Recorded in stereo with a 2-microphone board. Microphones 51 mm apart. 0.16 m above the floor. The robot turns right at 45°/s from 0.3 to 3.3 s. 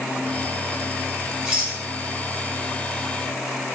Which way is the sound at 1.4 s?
20° right (ahead or behind).